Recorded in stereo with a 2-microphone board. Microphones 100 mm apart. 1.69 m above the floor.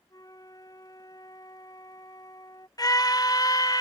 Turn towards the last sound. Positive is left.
turn(degrees=40)  # may be behind; listen again after turning